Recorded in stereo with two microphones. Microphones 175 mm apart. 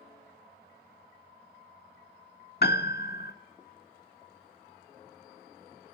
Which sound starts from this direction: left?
A piano, at 2.6 s.